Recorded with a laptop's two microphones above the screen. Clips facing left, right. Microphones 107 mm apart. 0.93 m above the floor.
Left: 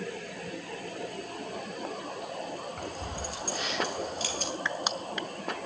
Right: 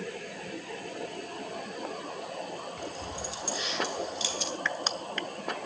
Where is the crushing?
15° left (ahead or behind), 0.6 m.